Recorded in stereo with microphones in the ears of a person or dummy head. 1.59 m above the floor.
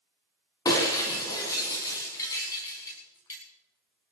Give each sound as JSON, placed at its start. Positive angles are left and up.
{"t": 0.7, "sound": "breaking glass", "side_deg": 15, "distance_m": 4.5}